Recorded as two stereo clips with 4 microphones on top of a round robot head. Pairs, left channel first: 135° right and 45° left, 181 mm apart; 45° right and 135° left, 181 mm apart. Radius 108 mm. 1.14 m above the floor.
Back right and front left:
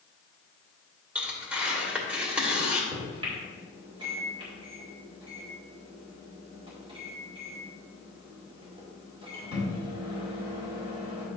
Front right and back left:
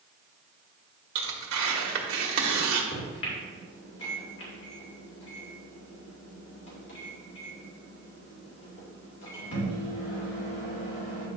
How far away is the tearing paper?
About 1.5 m.